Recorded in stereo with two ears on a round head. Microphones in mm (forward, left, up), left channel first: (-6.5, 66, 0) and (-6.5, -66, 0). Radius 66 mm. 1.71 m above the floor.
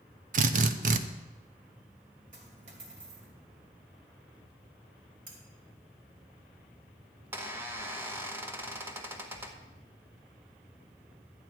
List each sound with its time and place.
0.3 s a drill: 55° right (ahead or behind), 0.7 m
2.3 s a dropped coin: 50° right (ahead or behind), 2.5 m
5.3 s cutlery clinking: 65° right (ahead or behind), 3.5 m
7.3 s a squeak: 15° right (ahead or behind), 1.1 m